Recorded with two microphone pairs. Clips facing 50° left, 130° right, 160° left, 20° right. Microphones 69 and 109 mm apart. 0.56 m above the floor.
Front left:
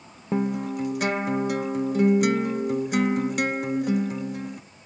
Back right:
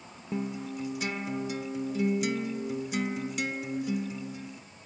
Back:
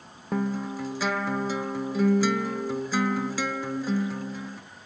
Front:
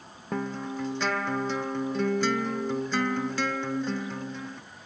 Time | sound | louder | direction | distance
0.3 | a guitar | front left 8 dB, back 3 dB | 80° left | 0.7 m